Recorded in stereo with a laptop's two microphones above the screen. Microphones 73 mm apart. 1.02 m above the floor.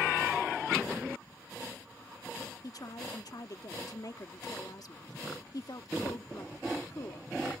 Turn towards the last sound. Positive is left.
turn(degrees=60)  # may be behind; listen again after turning